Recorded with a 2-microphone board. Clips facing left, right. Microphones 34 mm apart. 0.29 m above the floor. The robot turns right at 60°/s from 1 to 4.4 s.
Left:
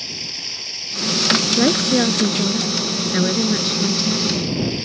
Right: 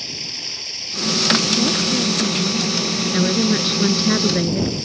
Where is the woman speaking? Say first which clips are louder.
Left 3 dB; 75° left; by 4.8 s 115° right.